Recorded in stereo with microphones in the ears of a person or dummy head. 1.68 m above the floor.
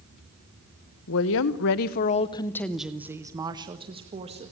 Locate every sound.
1.1 s a woman speaking: 65° left (ahead or behind), 1.3 m; by 4.5 s 30° right (ahead or behind), 2 m